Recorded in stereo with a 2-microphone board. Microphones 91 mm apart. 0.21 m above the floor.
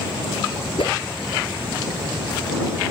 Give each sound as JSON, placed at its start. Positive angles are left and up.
{"t": 0.8, "sound": "a whoosh", "side_deg": 70}